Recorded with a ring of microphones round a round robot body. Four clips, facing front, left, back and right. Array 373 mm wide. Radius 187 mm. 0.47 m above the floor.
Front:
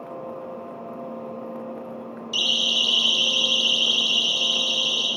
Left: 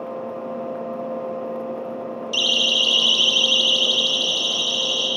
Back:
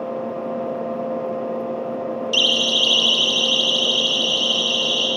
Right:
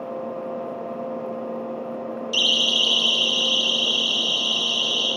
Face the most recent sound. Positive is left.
turn(degrees=100)